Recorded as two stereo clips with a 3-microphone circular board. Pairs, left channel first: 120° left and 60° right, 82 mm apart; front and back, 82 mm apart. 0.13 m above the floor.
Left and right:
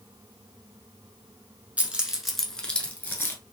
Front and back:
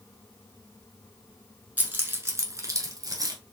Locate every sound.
1.8 s keys jangling: 125° right, 0.9 m; by 3.4 s 175° left, 1.1 m